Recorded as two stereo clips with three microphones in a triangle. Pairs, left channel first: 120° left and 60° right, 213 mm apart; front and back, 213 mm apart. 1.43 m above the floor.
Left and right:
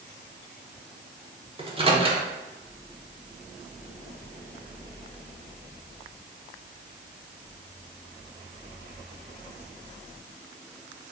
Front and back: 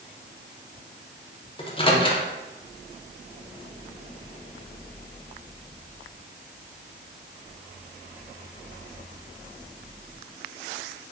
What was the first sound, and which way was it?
A microwave, 35° right.